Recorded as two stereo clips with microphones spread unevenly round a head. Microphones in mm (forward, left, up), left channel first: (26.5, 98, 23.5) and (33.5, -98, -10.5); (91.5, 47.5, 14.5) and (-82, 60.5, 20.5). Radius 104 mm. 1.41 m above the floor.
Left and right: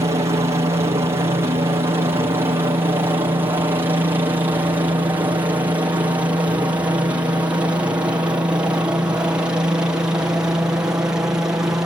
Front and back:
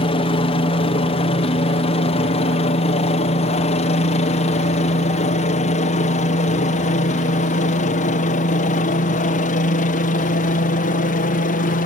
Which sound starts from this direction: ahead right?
A helicopter, at 0.0 s.